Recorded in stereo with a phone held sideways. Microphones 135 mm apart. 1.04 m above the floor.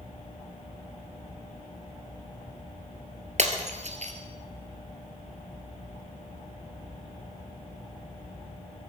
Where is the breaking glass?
55° right (ahead or behind), 1.9 m.